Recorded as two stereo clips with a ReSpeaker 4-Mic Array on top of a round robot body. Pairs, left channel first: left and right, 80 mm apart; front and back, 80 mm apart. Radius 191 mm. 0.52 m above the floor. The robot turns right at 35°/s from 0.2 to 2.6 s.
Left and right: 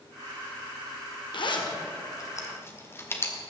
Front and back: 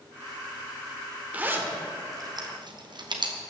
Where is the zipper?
110° left, 1.8 m; by 3.4 s 150° left, 1.8 m.